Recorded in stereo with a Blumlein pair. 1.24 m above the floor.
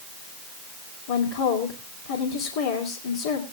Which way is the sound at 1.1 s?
55° left.